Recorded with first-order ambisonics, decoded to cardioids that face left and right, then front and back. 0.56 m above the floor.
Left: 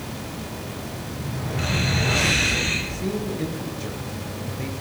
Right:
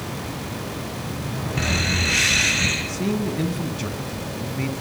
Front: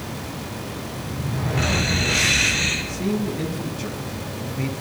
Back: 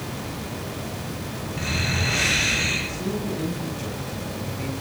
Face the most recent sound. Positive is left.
turn(degrees=-75)